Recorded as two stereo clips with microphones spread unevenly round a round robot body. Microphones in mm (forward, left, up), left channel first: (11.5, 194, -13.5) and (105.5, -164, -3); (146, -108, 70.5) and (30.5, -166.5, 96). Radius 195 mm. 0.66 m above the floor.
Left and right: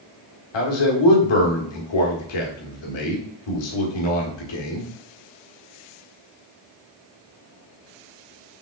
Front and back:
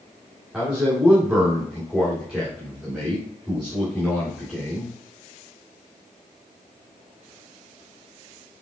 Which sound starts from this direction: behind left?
A man speaking, at 0.5 s.